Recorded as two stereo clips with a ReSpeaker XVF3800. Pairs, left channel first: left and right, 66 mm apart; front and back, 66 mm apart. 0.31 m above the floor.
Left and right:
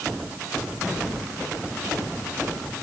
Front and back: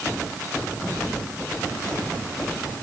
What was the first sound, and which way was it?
Only background noise.